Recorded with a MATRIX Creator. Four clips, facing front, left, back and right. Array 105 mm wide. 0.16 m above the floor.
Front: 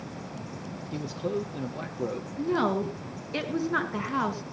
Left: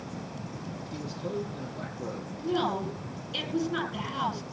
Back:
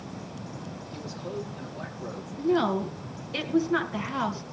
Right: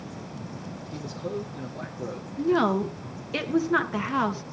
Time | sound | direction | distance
0.9 | a man speaking | 5° right | 3.5 m
2.4 | a woman speaking | 80° right | 2.5 m